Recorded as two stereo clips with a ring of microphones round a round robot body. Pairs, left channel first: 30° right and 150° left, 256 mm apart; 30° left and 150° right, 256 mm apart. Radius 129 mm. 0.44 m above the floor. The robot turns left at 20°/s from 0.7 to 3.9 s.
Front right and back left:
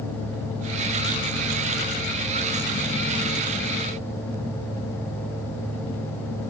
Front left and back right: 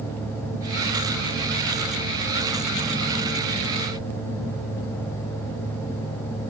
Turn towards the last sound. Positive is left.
No sound to turn to.